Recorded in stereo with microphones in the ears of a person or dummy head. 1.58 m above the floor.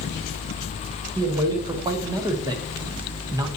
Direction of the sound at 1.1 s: 15° right (ahead or behind).